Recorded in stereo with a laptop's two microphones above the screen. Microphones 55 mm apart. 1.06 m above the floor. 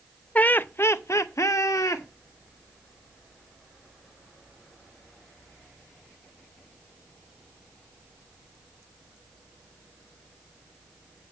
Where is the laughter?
25° left (ahead or behind), 0.8 m; by 2.0 s 80° left, 1.5 m.